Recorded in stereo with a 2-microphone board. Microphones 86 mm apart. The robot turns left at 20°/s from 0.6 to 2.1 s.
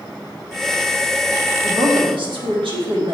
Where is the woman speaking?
75° right (ahead or behind), 1.3 m; by 3.2 s 70° right (ahead or behind), 1.3 m.